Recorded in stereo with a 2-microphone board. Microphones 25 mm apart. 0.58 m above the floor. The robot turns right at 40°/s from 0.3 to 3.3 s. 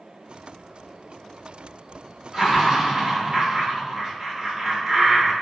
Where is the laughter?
165° right, 1.1 m; by 5.3 s 125° right, 1.1 m.